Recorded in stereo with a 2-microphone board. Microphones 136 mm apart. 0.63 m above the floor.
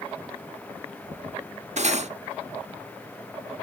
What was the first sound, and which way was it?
Cutlery clinking, 55° right (ahead or behind).